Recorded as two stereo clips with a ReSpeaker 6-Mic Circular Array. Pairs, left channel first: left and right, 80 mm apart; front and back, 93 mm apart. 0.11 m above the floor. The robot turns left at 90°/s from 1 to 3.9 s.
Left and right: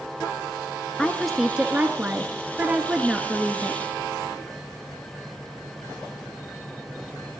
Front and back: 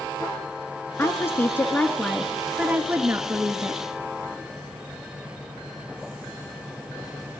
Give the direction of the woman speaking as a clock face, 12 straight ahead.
11 o'clock.